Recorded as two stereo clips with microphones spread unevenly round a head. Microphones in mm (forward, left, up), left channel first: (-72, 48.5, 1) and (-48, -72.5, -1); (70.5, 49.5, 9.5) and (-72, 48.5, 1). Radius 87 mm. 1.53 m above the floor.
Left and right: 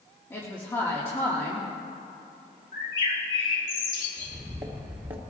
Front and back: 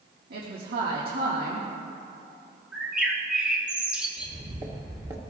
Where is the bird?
95° left, 2.5 m.